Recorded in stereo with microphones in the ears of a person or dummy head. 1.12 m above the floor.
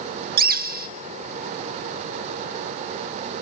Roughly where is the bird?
Right.